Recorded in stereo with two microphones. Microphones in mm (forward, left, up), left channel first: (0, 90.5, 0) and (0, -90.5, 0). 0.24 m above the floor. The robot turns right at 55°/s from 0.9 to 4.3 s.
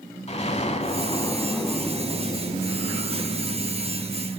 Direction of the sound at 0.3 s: 130° left.